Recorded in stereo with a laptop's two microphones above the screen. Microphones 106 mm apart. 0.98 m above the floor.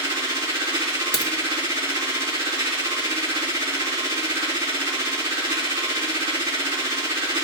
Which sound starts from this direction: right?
A machine running, at 0.0 s.